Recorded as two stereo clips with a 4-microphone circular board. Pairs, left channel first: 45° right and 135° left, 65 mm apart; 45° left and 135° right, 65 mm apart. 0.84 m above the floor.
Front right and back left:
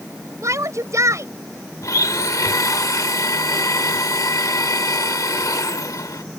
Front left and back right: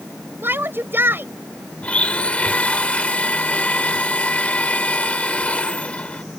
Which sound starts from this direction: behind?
A shout, at 0.4 s.